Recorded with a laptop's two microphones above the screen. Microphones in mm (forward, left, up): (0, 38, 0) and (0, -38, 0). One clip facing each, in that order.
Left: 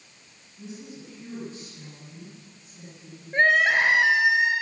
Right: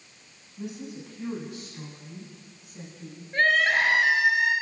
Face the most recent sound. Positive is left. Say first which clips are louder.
# left 2 dB
turn(degrees=20)  # may be behind; listen again after turning